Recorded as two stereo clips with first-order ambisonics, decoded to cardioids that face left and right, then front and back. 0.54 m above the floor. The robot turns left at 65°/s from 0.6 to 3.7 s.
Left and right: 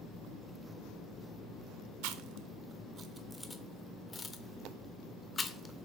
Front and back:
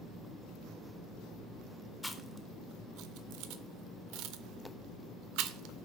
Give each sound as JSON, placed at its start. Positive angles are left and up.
{"t": 2.0, "sound": "chewing", "azimuth_deg": -90, "distance_m": 0.6}